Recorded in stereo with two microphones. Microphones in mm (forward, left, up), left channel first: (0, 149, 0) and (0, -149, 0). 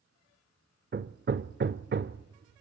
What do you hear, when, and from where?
0.9 s hammering: 35° right (ahead or behind), 0.7 m